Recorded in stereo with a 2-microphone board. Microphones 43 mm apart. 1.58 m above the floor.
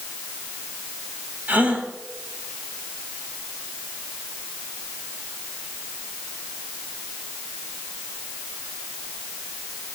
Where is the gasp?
45° right (ahead or behind), 4 m.